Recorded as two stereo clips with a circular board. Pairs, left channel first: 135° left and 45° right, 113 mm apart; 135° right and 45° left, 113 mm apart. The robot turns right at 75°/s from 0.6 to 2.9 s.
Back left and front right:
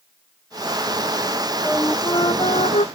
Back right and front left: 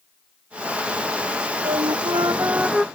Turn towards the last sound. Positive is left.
turn(degrees=140)